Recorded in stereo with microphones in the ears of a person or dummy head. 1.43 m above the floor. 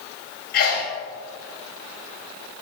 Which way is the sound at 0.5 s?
55° left (ahead or behind).